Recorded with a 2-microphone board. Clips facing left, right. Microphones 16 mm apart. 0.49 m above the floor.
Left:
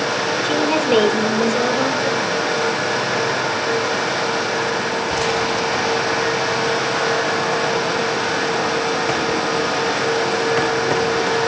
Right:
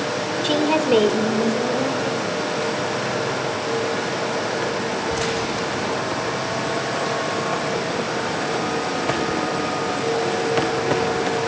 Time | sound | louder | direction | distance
0.4 | a woman speaking | right 1 dB | 30° right (ahead or behind) | 1.3 m